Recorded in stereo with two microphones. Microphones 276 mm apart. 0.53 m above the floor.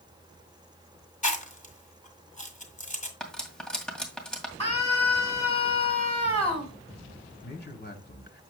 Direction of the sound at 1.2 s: 25° left (ahead or behind).